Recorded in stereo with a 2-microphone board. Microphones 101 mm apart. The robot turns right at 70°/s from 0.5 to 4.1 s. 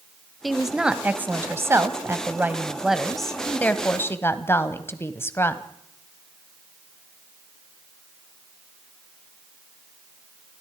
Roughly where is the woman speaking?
Centre.